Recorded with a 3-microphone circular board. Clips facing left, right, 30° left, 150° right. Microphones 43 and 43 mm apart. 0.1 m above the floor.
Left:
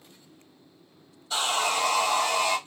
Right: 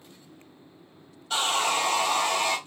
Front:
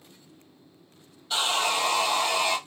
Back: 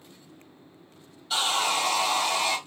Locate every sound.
1.3 s sawing: 60° right, 2.0 m